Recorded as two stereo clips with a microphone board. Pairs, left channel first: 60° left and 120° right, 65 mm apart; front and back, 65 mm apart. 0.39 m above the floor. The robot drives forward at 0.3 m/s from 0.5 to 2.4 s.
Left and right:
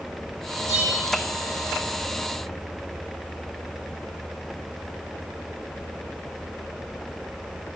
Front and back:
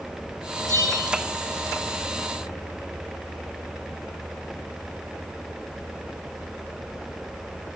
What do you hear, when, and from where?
0.7 s a bell: 25° left, 5.5 m